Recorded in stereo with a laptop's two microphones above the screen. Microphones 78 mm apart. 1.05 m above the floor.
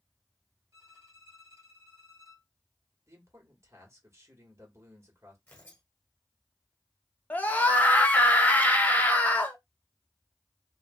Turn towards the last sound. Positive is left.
turn(degrees=20)  # may be behind; listen again after turning